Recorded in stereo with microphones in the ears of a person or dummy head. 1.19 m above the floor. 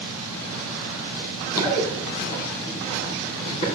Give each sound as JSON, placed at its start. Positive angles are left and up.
{"t": 1.1, "sound": "running footsteps", "side_deg": 15, "distance_m": 2.5}